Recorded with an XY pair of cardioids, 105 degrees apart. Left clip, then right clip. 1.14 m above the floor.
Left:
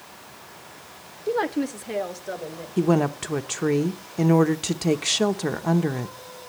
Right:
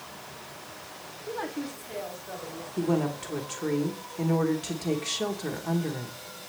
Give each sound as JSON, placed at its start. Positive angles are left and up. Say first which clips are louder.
{"t": 1.3, "sound": "a woman speaking", "louder": "left 10 dB", "azimuth_deg": 65, "distance_m": 0.8}
{"t": 2.8, "sound": "a woman speaking", "louder": "left 6 dB", "azimuth_deg": 55, "distance_m": 1.0}